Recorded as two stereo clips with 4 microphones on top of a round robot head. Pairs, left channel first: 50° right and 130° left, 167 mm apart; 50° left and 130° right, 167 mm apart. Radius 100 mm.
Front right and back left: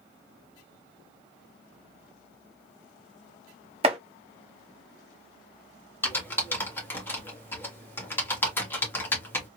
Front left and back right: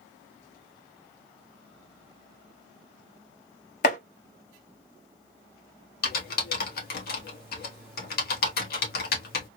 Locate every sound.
3.8 s chopping: 80° left, 0.7 m
6.0 s typing on a keyboard: 30° left, 1.7 m